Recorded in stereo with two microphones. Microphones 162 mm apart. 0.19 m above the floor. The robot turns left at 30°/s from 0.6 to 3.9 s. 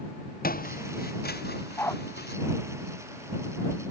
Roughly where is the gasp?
I don't hear a gasp.